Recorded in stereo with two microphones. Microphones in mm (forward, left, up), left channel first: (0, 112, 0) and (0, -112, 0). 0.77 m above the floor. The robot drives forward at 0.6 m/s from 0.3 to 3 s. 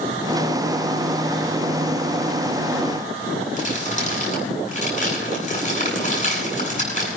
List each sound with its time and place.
3.6 s crumpling: 35° left (ahead or behind), 9 m